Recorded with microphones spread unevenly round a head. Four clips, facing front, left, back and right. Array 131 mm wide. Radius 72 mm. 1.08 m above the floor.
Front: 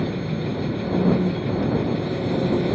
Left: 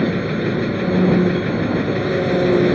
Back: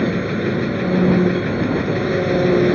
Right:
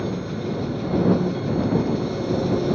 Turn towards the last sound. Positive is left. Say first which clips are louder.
# left 7 dB, back 6 dB
turn(degrees=135)